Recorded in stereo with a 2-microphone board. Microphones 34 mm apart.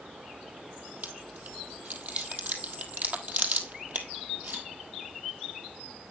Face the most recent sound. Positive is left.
turn(degrees=-45)  # may be behind; listen again after turning